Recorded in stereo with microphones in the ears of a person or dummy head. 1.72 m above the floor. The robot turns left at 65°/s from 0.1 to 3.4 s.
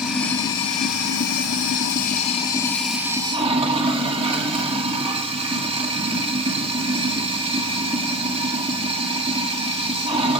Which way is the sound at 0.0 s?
Straight behind.